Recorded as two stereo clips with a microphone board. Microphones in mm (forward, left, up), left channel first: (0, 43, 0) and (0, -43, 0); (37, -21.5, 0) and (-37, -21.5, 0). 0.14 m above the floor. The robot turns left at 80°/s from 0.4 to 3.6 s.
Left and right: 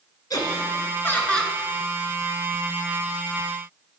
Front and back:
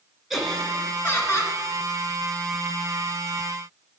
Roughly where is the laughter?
Left.